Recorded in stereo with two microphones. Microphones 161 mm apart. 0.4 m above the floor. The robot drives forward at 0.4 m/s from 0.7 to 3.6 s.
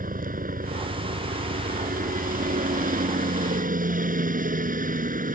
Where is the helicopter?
60° right (ahead or behind); by 5.3 s 55° right (ahead or behind).